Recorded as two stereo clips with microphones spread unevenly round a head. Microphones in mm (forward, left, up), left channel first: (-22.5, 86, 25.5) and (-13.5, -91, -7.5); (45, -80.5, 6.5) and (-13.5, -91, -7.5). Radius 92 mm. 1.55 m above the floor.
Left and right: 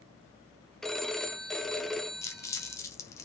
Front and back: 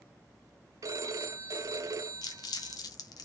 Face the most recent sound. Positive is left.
turn(degrees=15)